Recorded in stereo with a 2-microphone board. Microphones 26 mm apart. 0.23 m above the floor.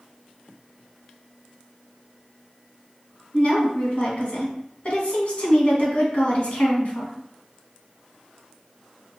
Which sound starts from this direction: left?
A woman speaking, at 3.3 s.